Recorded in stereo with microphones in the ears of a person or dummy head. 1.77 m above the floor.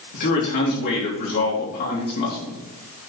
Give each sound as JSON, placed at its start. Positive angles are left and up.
{"t": 0.1, "sound": "a man speaking", "side_deg": 55, "distance_m": 3.5}